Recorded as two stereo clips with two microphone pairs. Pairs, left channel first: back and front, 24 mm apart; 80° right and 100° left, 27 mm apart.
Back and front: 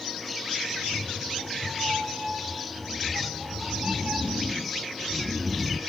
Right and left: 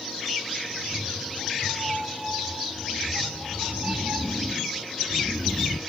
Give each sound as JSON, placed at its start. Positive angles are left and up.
{"t": 0.7, "sound": "a cat meowing", "azimuth_deg": 65, "distance_m": 5.0}